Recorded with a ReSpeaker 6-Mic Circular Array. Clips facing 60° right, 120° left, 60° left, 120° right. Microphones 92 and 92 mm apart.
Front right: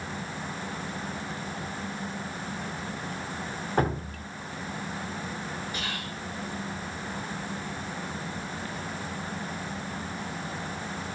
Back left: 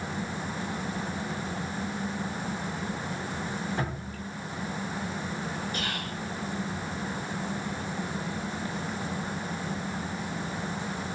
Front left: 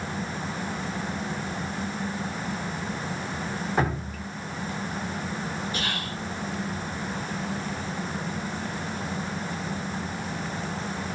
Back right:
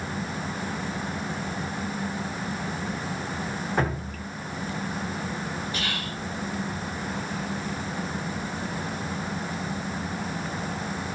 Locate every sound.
3.8 s dripping: 25° right, 0.7 m
5.7 s whispering: 105° left, 1.7 m